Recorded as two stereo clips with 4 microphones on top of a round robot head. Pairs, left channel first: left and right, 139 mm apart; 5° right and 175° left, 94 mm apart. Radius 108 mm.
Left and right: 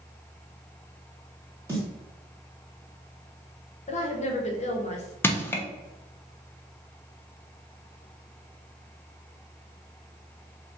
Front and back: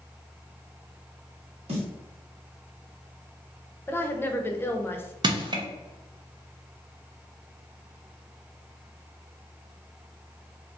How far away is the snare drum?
About 1.5 m.